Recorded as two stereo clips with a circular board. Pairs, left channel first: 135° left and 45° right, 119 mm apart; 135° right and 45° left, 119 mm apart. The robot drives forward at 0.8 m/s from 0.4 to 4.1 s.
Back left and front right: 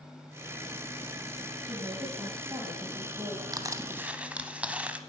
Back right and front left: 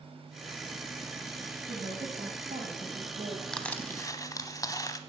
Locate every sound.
1.6 s a woman speaking: 15° left, 7 m; by 3.4 s 20° left, 5.5 m
3.5 s crushing: 55° right, 0.9 m; by 5.0 s 115° right, 0.8 m